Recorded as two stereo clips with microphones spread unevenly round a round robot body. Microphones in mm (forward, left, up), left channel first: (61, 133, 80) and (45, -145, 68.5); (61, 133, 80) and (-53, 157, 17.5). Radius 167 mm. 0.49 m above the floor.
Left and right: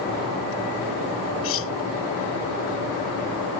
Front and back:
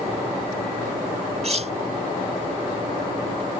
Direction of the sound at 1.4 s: 135° left.